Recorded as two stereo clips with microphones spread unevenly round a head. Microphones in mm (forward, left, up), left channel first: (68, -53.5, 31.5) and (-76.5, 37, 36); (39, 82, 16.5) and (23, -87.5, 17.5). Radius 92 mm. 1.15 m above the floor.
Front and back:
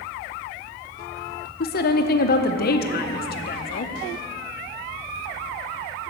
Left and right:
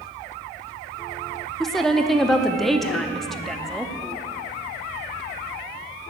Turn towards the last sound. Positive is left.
turn(degrees=-5)